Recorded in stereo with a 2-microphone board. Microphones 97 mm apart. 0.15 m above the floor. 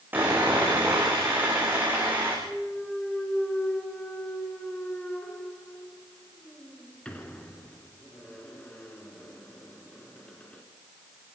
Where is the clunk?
10° left (ahead or behind), 2.0 m.